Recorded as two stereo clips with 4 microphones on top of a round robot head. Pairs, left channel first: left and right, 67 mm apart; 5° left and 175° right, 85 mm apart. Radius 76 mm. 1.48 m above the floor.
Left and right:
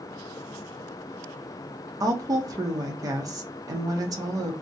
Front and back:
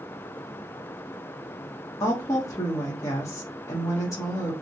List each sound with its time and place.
2.0 s a woman speaking: 55° right, 0.7 m